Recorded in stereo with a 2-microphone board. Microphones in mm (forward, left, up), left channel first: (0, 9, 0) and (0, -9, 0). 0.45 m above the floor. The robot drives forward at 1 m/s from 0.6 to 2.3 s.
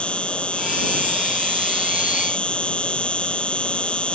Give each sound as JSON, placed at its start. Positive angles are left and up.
{"t": 0.0, "sound": "an insect", "side_deg": 80}